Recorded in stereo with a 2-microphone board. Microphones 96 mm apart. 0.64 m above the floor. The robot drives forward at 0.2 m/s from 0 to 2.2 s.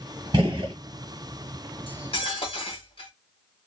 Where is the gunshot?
60° right (ahead or behind), 1.2 m.